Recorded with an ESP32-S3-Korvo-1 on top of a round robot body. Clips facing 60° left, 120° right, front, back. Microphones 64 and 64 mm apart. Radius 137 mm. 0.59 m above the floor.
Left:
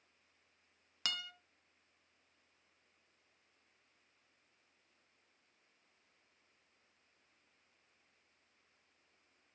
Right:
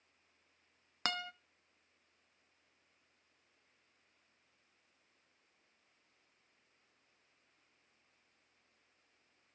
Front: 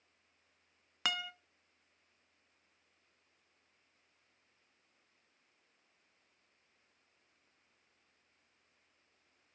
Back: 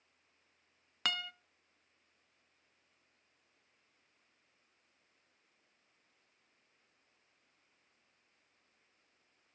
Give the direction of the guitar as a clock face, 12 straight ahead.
3 o'clock.